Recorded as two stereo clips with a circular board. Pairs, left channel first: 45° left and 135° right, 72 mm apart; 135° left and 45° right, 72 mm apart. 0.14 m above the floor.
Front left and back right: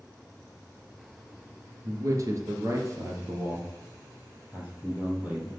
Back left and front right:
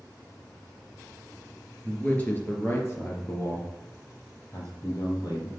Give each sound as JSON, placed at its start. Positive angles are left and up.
{"t": 1.8, "sound": "a man speaking", "azimuth_deg": -155, "distance_m": 2.5}